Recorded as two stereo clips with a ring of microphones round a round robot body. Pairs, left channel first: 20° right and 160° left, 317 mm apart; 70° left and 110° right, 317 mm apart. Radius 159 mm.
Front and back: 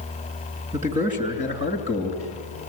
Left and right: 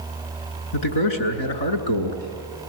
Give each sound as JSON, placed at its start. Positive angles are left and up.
{"t": 0.7, "sound": "a man speaking", "azimuth_deg": 90, "distance_m": 6.5}